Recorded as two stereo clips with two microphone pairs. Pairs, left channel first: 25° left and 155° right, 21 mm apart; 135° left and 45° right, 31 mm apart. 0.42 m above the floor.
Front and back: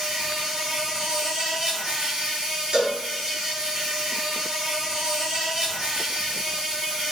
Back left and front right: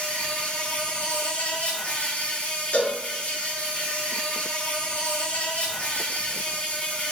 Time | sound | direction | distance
0.0 | an insect | 160° left | 3.5 m
2.7 | a cowbell | 170° left | 3.5 m